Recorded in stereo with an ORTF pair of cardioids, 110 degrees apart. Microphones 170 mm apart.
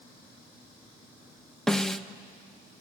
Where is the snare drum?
5° left, 0.6 m.